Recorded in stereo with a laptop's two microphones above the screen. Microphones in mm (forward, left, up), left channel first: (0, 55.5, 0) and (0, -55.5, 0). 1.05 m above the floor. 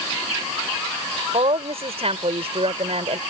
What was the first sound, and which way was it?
A woman speaking, 60° right (ahead or behind).